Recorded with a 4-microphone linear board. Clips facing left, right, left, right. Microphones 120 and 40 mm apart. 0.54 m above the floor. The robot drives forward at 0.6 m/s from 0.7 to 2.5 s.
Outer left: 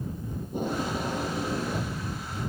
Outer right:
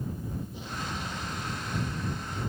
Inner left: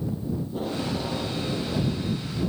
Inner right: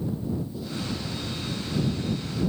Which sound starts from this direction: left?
Tape being pulled, at 0.4 s.